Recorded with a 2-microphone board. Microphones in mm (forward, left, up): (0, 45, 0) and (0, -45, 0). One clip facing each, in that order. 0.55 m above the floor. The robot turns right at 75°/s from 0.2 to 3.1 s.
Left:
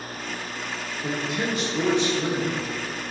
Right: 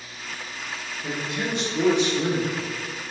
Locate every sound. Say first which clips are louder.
1.0 s a man speaking: left 2 dB; 135° left, 1.6 m; by 2.6 s 110° right, 1.6 m